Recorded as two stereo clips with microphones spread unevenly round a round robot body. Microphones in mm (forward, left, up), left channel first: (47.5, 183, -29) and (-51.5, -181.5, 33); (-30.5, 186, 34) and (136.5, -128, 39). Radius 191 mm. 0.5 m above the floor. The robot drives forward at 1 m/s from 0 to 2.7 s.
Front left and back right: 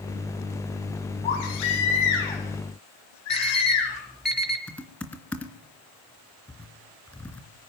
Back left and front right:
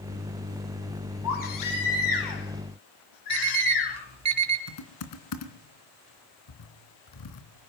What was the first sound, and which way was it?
A baby crying, 80° left.